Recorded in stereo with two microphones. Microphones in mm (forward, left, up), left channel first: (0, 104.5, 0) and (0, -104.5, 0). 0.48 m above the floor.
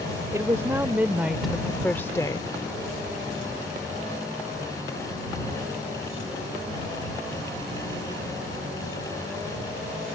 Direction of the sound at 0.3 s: 15° right (ahead or behind).